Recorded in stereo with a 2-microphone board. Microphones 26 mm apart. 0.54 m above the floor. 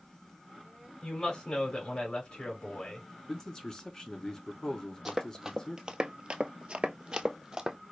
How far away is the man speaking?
About 1.3 m.